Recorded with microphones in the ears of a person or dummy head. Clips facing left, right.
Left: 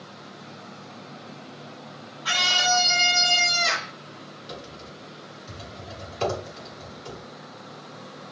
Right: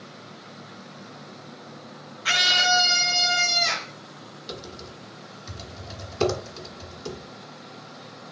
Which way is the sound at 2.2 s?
45° right (ahead or behind).